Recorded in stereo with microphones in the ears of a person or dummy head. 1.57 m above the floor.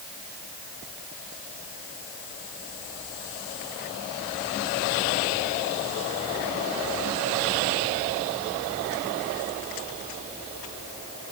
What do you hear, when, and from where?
Only background noise.